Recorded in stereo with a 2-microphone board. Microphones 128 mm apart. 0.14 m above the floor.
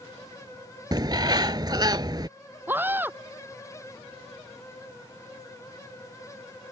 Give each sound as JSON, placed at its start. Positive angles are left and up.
{"t": 0.9, "sound": "a bird", "side_deg": -35}
{"t": 2.7, "sound": "a scream", "side_deg": -15}